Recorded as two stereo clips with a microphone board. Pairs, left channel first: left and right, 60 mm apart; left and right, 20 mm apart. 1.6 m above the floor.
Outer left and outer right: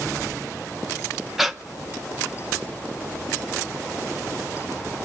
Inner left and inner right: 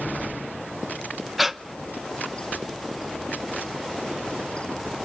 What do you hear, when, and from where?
1.4 s breathing: 5° right (ahead or behind), 0.8 m